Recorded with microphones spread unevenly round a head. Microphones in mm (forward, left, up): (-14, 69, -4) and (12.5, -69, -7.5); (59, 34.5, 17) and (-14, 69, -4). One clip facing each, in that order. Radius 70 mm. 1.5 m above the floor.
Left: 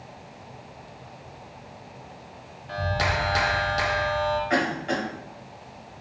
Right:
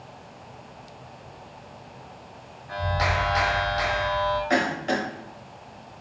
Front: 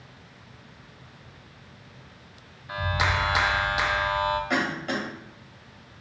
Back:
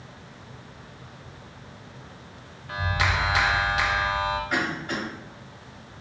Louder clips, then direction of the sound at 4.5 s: Right 1 dB, front 1 dB; 35° right.